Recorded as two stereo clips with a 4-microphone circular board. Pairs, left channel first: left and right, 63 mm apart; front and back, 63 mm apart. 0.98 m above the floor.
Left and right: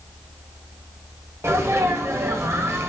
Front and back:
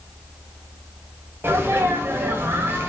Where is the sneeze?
130° right, 1.1 m.